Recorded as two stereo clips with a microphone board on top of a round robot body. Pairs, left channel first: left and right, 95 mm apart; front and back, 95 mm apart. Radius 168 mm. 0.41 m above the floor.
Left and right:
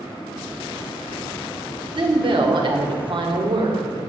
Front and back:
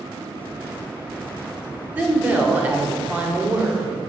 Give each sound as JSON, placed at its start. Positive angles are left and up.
{"t": 1.9, "sound": "a woman speaking", "azimuth_deg": -110, "distance_m": 2.0}